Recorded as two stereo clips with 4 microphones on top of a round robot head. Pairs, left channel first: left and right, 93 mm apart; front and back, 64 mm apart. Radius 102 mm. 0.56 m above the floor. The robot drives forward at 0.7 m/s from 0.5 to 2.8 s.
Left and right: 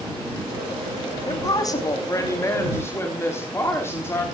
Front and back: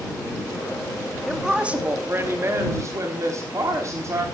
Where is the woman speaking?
90° left, 1.1 m; by 4.3 s 150° left, 1.5 m.